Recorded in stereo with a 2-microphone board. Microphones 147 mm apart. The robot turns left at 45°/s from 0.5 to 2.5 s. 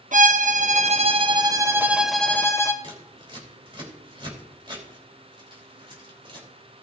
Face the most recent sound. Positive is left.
turn(degrees=-35)  # may be behind; listen again after turning